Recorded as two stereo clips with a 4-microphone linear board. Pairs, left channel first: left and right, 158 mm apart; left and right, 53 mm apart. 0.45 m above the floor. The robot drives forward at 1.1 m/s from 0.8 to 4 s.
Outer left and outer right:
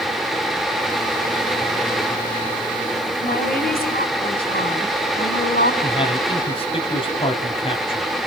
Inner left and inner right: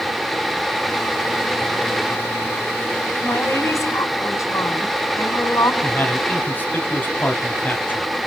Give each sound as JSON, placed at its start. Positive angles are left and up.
{"t": 3.2, "sound": "a woman speaking", "side_deg": 65, "distance_m": 3.5}
{"t": 5.8, "sound": "a man speaking", "side_deg": 35, "distance_m": 3.0}